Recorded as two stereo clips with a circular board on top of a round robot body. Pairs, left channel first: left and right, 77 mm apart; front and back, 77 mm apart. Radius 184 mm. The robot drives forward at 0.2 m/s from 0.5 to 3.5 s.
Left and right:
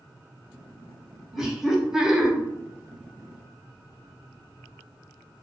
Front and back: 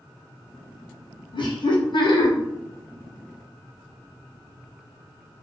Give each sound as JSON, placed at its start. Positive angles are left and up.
{"t": 1.3, "sound": "laughter", "azimuth_deg": -5, "distance_m": 0.8}